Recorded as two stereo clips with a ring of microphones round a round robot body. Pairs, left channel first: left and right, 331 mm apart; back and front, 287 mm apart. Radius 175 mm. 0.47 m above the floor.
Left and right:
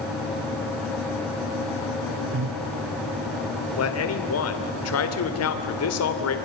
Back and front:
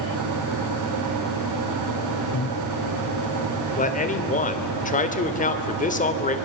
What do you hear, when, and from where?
2.3 s breathing: 130° right, 0.6 m
3.8 s a man speaking: 120° left, 2.5 m